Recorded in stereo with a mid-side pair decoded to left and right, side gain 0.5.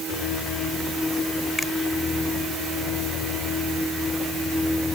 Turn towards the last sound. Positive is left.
turn(degrees=15)